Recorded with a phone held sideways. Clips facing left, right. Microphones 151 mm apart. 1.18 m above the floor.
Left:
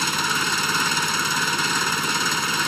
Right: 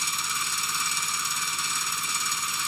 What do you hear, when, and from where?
0.0 s an engine running: 70° left (ahead or behind)